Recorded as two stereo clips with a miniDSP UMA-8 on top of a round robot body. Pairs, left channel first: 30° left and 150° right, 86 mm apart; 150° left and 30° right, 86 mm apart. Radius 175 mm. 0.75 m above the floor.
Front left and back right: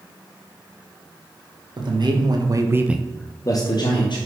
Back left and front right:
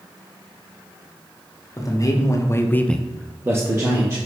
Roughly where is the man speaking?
Behind.